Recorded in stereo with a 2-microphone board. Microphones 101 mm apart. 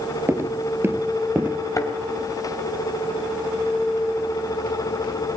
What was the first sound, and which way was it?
Footsteps, 25° right (ahead or behind).